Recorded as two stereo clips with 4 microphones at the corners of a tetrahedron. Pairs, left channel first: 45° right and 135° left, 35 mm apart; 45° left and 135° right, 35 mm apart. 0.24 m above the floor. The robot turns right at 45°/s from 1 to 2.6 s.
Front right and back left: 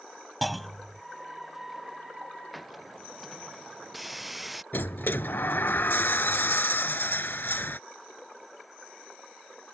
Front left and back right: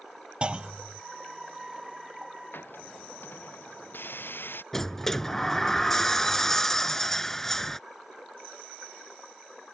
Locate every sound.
0.4 s a clunk: 130° right
2.5 s a hiss: 45° left; by 4.6 s 50° left
4.7 s a sliding door: 30° right